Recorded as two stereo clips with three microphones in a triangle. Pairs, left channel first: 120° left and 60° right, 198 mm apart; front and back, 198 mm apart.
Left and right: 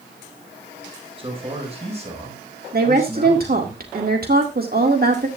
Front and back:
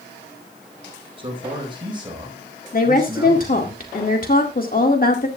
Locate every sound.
1.2 s a man speaking: 120° right, 4 m; by 3.7 s 105° right, 5 m
2.7 s a woman speaking: 35° right, 1.9 m